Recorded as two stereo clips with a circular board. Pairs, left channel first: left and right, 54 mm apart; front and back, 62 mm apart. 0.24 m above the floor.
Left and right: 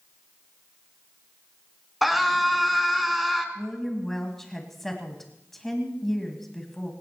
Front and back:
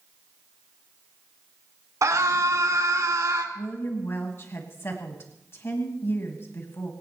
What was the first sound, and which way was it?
A scream, 175° right.